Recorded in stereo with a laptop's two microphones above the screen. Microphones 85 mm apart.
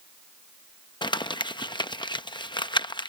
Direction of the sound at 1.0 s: 65° left (ahead or behind).